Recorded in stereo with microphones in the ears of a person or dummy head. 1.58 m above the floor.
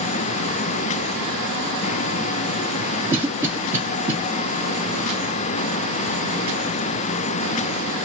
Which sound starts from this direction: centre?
A cough, at 3.1 s.